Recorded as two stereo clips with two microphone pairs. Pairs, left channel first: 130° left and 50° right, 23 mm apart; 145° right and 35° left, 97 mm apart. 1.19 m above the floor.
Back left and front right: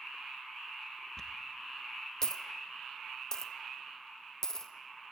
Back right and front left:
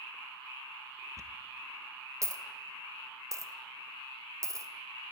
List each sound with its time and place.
1.2 s a dropped coin: 75° left, 0.5 m